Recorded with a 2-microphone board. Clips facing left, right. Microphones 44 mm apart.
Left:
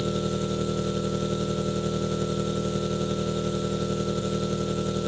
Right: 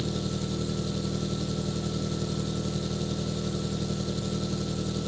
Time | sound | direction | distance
0.0 | an engine running | 45° left (ahead or behind) | ?